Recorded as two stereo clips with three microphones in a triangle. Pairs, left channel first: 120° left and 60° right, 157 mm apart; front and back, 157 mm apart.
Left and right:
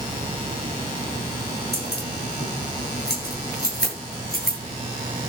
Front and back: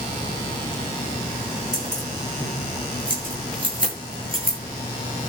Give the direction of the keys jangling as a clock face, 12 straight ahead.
8 o'clock.